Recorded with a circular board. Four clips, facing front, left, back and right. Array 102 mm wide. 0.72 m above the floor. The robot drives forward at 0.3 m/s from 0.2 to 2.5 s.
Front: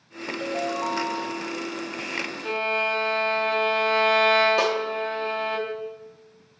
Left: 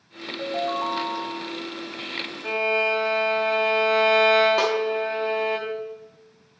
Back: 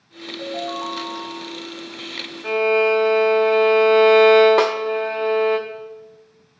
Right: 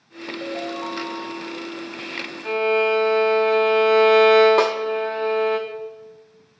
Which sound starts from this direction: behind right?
A snare drum, at 4.6 s.